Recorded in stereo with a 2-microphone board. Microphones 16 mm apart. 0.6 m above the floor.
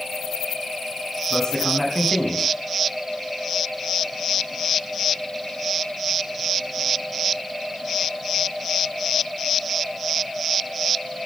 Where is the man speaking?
35° left (ahead or behind), 5.5 m.